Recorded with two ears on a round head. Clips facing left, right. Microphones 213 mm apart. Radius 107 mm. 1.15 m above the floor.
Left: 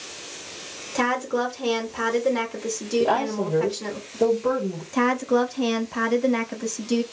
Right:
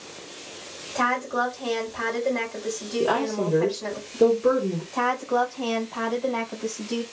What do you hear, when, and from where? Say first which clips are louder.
0.9 s a woman speaking: left 3 dB; 45° left (ahead or behind), 1.1 m
3.0 s a woman speaking: right 1 dB; 15° right (ahead or behind), 1.2 m
4.9 s a woman speaking: left 7 dB; 35° left (ahead or behind), 0.7 m